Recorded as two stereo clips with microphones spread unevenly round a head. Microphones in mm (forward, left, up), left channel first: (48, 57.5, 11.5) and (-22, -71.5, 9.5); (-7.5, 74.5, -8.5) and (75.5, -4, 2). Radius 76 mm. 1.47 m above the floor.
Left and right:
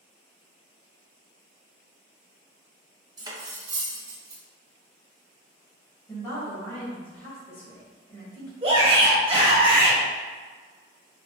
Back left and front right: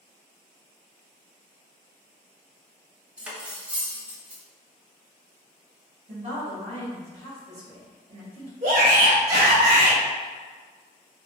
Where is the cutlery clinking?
95° right, 0.7 m.